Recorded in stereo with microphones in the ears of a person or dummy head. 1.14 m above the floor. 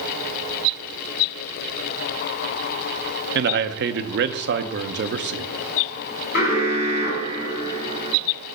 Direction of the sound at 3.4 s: 50° right (ahead or behind).